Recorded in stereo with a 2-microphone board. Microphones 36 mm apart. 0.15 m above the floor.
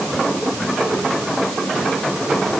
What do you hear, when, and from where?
Only background noise.